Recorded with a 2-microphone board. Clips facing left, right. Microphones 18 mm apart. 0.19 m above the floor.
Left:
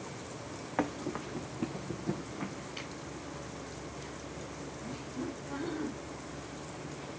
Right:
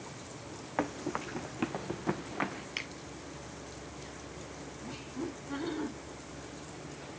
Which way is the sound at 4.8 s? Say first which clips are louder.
Even; 25° right (ahead or behind).